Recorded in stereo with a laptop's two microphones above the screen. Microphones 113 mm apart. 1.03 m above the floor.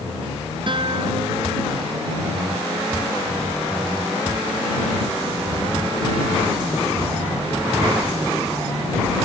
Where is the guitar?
50° right (ahead or behind).